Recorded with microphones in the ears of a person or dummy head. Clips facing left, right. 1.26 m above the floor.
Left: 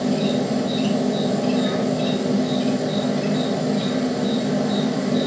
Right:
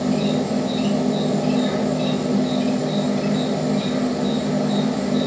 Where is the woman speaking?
No woman speaking in this recording.